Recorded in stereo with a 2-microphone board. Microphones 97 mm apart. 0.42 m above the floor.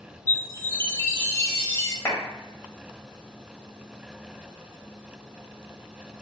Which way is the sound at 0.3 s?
30° left (ahead or behind).